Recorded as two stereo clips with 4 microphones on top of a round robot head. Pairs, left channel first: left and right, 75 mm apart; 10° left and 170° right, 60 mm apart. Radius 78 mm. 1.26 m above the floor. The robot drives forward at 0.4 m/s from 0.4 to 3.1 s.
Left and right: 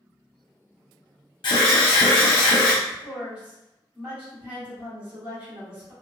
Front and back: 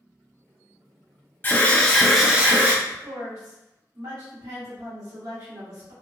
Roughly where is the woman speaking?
Behind.